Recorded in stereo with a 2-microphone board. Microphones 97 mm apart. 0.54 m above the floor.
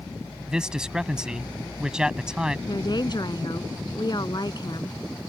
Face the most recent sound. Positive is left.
turn(degrees=50)  # may be behind; listen again after turning